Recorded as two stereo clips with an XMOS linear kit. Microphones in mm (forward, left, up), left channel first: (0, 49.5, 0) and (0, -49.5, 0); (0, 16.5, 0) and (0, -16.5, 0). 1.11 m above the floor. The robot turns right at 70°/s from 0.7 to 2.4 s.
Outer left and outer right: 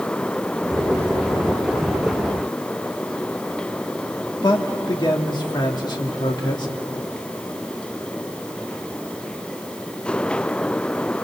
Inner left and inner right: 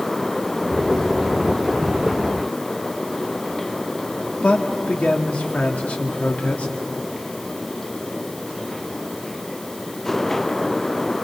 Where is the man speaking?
50° left (ahead or behind), 2.5 m.